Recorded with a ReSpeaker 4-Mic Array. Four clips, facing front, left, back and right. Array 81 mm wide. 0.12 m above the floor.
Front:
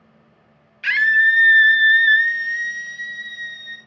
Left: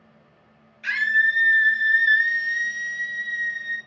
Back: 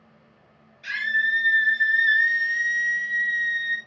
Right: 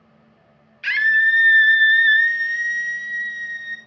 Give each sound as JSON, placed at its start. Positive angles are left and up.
{"t": 0.8, "sound": "a scream", "azimuth_deg": -25, "distance_m": 1.9}